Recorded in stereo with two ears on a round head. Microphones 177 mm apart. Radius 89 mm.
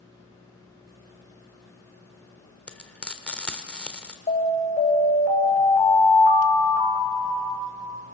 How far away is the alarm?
About 4 m.